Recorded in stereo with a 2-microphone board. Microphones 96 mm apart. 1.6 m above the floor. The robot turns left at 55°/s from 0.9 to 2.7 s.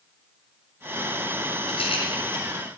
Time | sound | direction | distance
1.7 | a rattle | 85° left | 7 m